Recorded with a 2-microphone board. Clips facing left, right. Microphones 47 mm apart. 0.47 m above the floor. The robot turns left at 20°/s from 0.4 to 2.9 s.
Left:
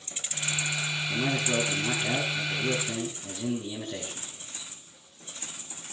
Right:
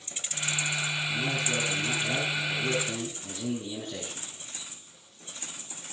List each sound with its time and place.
1.1 s a man speaking: 35° left, 6.5 m; by 4.3 s straight ahead, 6.5 m